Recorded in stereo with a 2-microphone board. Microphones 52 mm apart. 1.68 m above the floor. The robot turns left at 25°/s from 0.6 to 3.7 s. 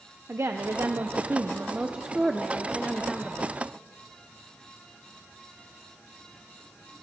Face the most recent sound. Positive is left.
turn(degrees=160)